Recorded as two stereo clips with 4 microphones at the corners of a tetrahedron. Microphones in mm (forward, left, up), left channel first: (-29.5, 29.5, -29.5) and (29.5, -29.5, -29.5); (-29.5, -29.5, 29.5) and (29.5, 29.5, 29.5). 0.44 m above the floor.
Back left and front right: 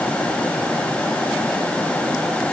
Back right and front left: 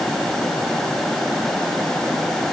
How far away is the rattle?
No rattle in this recording.